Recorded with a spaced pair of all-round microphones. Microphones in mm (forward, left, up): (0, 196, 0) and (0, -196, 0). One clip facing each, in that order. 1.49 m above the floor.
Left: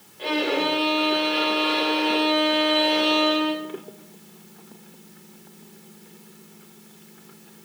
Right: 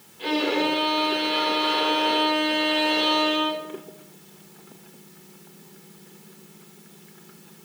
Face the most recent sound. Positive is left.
turn(degrees=-20)  # may be behind; listen again after turning